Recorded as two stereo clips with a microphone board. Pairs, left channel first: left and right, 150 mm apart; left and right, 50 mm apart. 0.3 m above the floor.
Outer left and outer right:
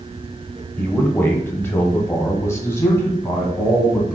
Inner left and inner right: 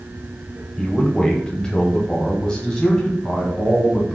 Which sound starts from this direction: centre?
A man speaking, at 0.8 s.